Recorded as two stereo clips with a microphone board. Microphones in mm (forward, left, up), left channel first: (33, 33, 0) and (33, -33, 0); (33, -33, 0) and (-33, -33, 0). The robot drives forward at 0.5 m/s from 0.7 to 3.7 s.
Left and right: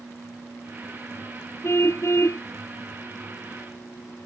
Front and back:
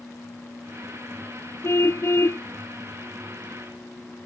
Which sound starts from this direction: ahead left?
A car horn, at 1.6 s.